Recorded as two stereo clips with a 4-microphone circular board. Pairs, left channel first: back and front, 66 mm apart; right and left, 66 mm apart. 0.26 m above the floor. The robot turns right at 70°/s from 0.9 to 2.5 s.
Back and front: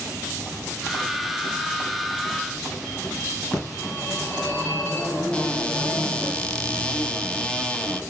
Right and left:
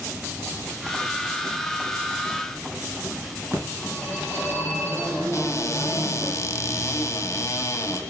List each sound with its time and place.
3.5 s a phone ringing: 130° left, 2.5 m
5.3 s a cupboard door: 110° right, 0.7 m